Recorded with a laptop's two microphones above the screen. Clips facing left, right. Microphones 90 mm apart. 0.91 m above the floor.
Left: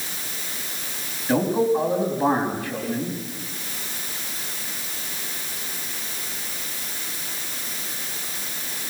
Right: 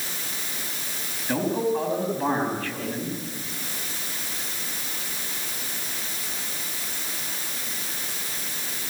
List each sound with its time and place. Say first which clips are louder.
1.3 s a man speaking: left 4 dB; 15° left (ahead or behind), 5 m